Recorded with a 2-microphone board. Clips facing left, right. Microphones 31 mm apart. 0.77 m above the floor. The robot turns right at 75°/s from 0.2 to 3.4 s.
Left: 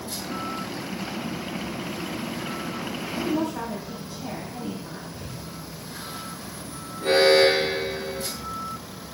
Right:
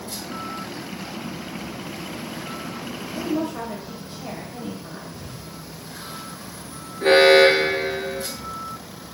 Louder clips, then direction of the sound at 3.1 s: Right 1 dB; 70° right (ahead or behind).